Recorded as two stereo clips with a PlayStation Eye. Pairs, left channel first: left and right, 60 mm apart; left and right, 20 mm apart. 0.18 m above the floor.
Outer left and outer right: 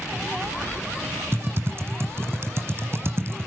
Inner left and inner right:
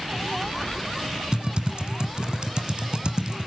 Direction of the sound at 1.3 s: 45° right (ahead or behind).